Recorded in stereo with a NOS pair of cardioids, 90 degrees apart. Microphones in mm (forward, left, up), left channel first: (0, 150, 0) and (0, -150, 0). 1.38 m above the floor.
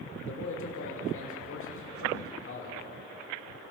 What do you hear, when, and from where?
0.2 s a man speaking: 45° left, 5.5 m